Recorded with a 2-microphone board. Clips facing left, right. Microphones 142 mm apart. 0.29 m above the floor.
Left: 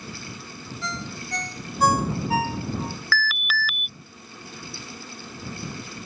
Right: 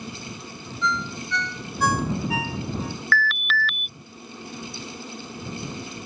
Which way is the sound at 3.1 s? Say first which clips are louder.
Right 3 dB; 5° left (ahead or behind).